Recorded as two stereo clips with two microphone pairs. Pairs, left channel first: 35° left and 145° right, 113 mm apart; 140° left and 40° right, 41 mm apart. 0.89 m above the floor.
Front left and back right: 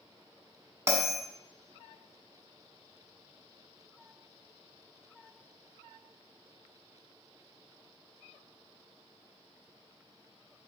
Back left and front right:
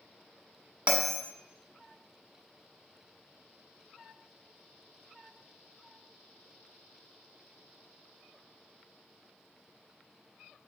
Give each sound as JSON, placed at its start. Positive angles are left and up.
{"t": 0.9, "sound": "a bell", "azimuth_deg": -85, "distance_m": 1.2}